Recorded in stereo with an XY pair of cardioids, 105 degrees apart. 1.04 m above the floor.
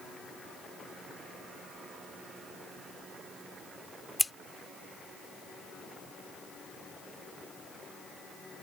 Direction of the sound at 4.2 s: 10° left.